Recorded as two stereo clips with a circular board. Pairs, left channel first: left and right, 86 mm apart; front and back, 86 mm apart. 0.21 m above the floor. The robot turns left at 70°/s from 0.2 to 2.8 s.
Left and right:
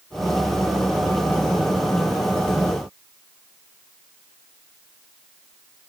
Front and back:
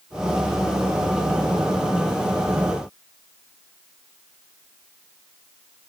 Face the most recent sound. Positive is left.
No sound to turn to.